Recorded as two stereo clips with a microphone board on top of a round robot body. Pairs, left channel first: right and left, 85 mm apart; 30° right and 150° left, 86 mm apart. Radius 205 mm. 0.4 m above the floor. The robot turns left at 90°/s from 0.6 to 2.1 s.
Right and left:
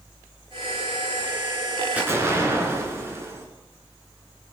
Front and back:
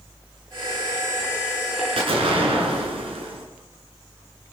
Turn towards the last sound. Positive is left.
turn(degrees=150)